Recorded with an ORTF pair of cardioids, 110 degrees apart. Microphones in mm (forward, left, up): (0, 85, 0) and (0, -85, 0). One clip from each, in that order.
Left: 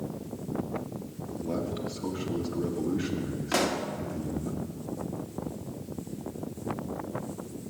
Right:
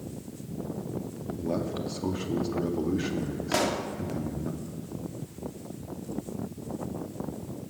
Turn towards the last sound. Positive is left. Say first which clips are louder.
# even
turn(degrees=0)